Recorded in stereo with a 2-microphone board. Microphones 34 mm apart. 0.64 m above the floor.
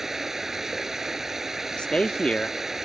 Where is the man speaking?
30° left (ahead or behind).